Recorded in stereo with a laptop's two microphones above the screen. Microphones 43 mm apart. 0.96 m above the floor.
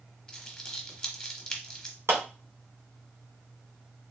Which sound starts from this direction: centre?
Crumpling, at 0.3 s.